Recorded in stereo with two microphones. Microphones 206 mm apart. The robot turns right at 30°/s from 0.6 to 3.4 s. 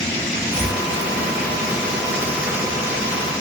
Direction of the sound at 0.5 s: 5° right (ahead or behind).